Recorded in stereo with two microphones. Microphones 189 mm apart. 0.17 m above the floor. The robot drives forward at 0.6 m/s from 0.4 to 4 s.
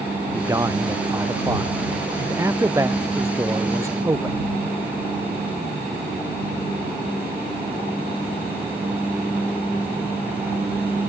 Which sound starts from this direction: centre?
A man speaking, at 0.3 s.